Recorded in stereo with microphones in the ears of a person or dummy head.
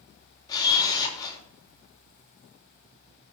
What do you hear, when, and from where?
0.5 s a camera shutter: 25° left (ahead or behind), 3 m